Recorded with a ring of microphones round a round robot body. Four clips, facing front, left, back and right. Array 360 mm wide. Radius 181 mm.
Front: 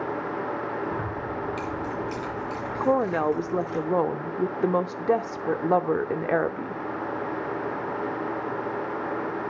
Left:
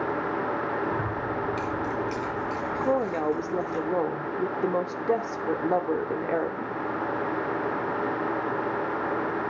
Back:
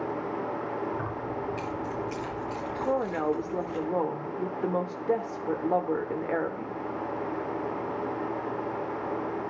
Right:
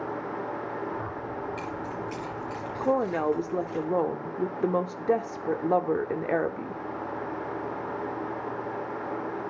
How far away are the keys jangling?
About 4.5 m.